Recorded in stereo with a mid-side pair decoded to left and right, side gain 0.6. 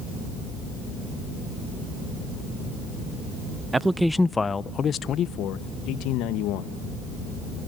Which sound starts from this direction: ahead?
A man speaking, at 3.7 s.